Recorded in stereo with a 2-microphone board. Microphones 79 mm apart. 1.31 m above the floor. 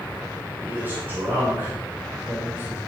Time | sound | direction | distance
0.6 | a man speaking | 30° right (ahead or behind) | 5.5 m